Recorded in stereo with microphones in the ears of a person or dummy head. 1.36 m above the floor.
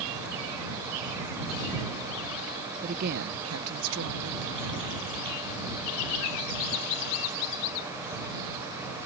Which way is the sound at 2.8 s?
35° right (ahead or behind).